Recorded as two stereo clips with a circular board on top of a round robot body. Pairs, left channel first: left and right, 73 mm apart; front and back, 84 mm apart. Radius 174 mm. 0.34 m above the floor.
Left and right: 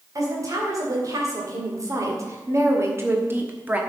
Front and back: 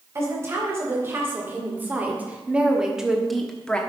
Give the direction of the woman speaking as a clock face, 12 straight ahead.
4 o'clock.